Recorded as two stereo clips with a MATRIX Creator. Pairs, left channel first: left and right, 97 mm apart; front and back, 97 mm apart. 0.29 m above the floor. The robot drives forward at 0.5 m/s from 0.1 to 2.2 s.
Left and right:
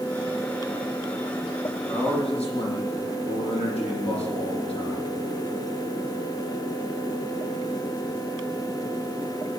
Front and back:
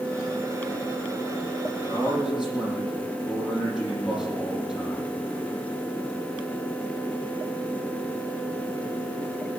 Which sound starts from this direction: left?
A man speaking, at 1.9 s.